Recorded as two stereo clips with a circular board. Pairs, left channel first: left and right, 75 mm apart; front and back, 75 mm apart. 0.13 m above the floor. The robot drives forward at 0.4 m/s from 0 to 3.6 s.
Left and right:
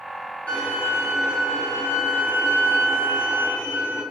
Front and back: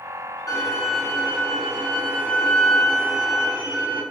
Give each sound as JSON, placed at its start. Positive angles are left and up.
{"t": 0.5, "sound": "a violin", "azimuth_deg": 25, "distance_m": 1.3}